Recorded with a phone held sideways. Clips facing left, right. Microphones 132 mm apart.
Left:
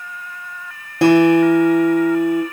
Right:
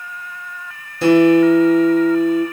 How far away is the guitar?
About 1.1 m.